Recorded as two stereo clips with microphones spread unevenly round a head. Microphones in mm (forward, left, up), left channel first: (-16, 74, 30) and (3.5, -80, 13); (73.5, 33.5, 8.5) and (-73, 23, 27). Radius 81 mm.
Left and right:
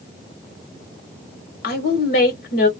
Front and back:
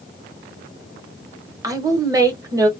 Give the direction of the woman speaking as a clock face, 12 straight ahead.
8 o'clock.